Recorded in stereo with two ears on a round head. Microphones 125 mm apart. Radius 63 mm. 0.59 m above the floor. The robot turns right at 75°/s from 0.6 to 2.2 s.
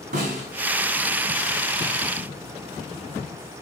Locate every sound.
0.1 s a snare drum: 60° right (ahead or behind), 4 m